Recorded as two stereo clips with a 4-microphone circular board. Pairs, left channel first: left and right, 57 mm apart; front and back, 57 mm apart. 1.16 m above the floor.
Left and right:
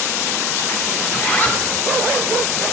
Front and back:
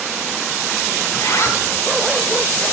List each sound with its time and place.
1.1 s a zipper: 30° left, 1.6 m